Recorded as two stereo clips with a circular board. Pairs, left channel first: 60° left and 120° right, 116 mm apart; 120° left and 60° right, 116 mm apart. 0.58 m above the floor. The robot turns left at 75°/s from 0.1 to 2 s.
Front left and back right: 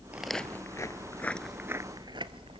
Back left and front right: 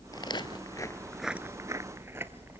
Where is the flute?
No flute in this recording.